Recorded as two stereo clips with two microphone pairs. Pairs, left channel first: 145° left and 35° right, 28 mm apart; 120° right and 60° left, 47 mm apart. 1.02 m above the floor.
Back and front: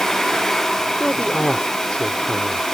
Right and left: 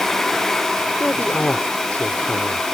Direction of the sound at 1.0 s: 170° right.